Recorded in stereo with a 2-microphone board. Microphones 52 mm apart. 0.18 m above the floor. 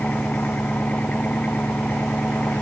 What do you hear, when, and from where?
0.0 s an engine running: 30° left (ahead or behind)